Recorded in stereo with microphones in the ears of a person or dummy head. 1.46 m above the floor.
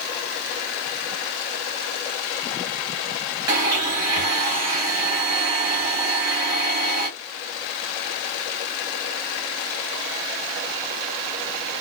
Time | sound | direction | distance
3.5 | a blender | 20° right (ahead or behind) | 1.4 m